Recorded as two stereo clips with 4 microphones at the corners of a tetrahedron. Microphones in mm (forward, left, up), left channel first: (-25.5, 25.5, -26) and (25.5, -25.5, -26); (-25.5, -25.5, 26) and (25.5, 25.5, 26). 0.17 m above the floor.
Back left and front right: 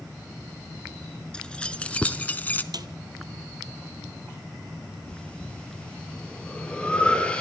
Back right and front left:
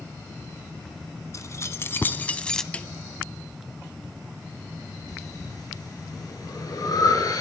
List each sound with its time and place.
1.3 s keys jangling: 150° right, 1.1 m; by 2.6 s 150° left, 0.8 m
2.7 s a snare drum: 60° right, 0.9 m
5.1 s breathing: 155° right, 4 m